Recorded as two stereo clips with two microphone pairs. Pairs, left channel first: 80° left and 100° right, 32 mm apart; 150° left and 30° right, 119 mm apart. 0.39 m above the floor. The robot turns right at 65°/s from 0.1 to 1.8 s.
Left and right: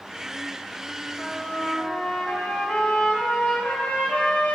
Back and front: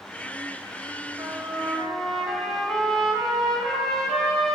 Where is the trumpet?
25° left, 0.6 m; by 4.5 s 65° left, 0.6 m.